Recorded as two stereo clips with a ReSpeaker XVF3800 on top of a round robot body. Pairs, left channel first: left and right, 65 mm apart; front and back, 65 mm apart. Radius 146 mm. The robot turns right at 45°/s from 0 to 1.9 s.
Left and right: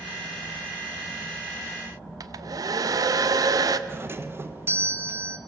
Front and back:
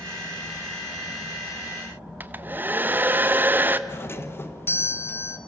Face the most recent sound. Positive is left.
turn(degrees=-45)